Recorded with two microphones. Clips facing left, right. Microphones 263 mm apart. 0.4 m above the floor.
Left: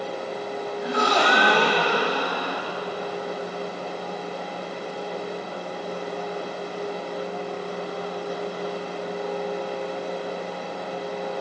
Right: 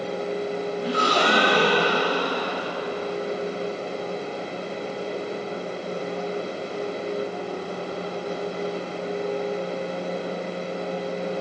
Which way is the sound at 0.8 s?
35° right (ahead or behind).